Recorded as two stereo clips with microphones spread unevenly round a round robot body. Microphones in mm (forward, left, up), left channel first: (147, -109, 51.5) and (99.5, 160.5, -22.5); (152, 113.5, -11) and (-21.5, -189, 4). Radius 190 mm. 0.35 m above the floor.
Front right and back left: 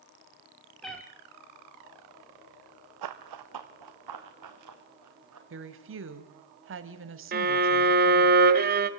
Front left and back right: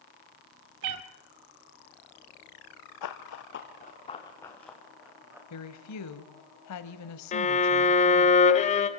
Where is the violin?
125° left, 1.0 m.